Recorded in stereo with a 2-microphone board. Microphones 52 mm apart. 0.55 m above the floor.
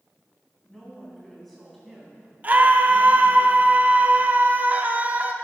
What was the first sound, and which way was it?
A woman speaking, 5° left (ahead or behind).